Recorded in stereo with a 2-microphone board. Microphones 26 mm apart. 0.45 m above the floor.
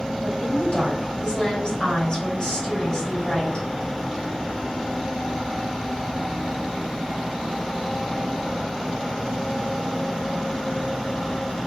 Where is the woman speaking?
25° left (ahead or behind), 1.9 m.